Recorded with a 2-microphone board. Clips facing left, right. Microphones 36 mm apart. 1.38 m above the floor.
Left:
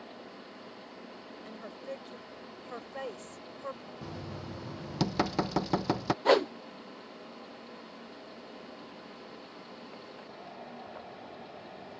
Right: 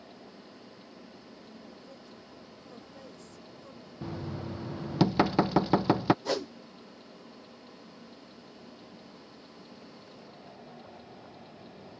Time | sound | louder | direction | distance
1.4 | a woman speaking | left 11 dB | 60° left (ahead or behind) | ?
4.0 | knocking | right 6 dB | 15° right (ahead or behind) | ?
6.2 | a whoosh | left 8 dB | 40° left (ahead or behind) | ?